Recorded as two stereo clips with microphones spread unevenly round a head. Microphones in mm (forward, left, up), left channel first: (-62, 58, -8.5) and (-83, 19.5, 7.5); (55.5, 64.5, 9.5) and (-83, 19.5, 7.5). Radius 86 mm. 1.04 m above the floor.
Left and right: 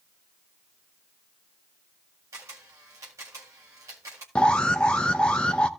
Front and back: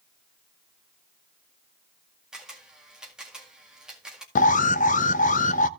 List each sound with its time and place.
2.3 s a camera shutter: 75° right, 1.9 m
4.3 s an alarm: 15° left, 0.6 m